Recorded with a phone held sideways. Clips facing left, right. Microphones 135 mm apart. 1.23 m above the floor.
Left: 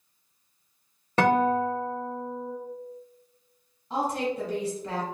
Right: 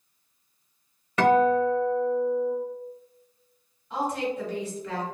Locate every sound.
1.2 s a guitar: 35° left (ahead or behind), 1.4 m
3.9 s a woman speaking: 35° left (ahead or behind), 1.9 m